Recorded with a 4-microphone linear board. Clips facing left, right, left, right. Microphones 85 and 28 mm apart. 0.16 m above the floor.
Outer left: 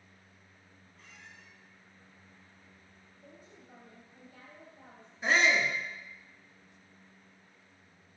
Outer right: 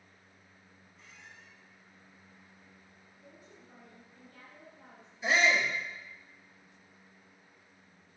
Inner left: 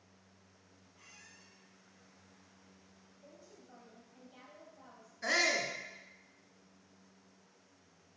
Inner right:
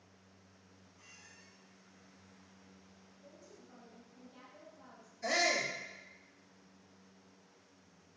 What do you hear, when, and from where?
0.9 s a squeak: 60° left (ahead or behind), 3 m
3.2 s a woman speaking: 45° left (ahead or behind), 3 m
5.2 s a shout: 50° left (ahead or behind), 2.0 m